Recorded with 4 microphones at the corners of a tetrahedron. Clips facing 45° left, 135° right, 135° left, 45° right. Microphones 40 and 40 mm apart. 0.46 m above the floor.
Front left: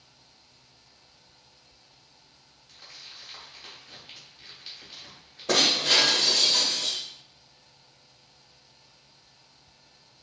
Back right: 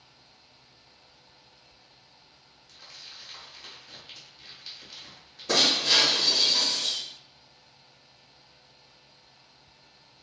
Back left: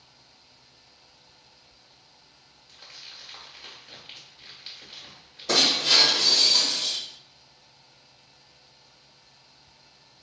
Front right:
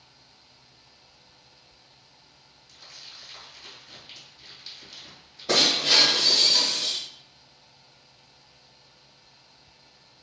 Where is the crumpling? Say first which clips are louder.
Even, back left 1 dB; 105° left, 0.9 m.